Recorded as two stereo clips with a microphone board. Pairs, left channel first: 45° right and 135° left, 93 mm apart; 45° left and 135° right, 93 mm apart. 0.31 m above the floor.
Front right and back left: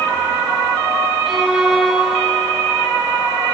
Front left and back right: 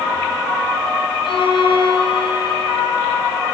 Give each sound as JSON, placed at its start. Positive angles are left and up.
{"t": 1.2, "sound": "a violin", "azimuth_deg": 50, "distance_m": 2.5}